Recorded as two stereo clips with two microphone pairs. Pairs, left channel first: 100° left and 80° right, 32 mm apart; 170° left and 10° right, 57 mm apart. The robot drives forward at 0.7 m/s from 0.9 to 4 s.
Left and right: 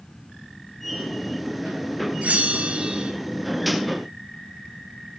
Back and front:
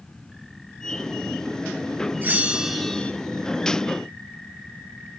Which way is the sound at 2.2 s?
50° right.